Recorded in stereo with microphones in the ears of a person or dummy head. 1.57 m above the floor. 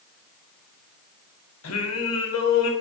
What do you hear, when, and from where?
1.6 s singing: 80° left, 0.7 m